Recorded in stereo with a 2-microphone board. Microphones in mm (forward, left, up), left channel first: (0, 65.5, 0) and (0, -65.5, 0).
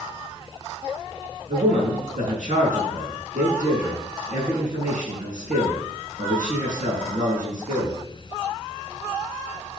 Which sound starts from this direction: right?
A man speaking, at 1.5 s.